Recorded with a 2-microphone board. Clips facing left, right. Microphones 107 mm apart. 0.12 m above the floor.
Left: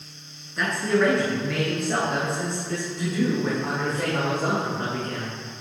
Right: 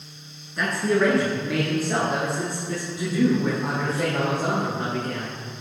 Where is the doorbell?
No doorbell in this recording.